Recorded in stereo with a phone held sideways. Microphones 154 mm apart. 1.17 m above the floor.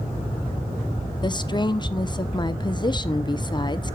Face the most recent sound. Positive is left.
turn(degrees=30)  # may be behind; listen again after turning